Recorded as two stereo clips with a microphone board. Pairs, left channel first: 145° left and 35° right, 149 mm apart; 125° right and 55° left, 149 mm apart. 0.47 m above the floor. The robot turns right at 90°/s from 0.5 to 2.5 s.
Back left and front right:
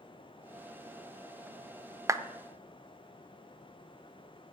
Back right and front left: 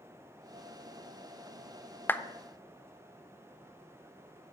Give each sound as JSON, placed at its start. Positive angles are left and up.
{"t": 2.1, "sound": "a clap", "azimuth_deg": -70, "distance_m": 0.5}